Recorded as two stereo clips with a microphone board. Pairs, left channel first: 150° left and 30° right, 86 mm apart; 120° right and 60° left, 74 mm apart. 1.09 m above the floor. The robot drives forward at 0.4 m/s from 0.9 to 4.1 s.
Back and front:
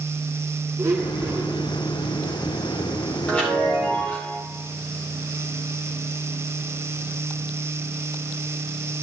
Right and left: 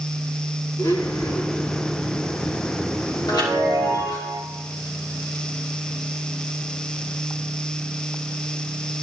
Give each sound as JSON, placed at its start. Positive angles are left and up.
{"t": 0.8, "sound": "a blender", "azimuth_deg": -80, "distance_m": 4.5}
{"t": 3.3, "sound": "a chime", "azimuth_deg": -135, "distance_m": 4.5}